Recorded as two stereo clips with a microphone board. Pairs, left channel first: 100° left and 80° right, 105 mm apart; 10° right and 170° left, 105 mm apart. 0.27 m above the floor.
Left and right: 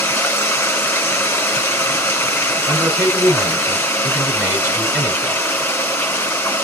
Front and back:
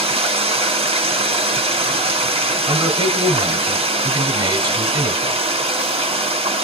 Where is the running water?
170° left, 2.5 m.